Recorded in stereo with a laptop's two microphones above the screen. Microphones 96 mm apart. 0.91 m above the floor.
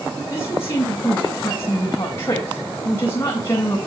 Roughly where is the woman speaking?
Left.